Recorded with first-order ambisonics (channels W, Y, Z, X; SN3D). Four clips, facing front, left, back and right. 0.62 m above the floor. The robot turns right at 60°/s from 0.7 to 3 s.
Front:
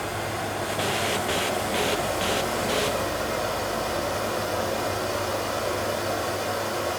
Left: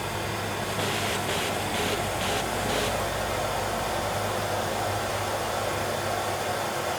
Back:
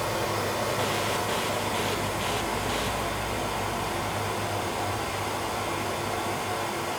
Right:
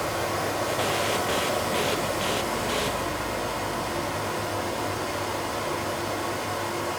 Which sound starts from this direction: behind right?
Running water, at 0.0 s.